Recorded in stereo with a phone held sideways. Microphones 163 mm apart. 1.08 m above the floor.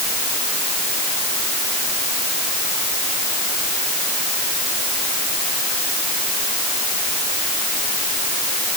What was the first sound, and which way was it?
Only background noise.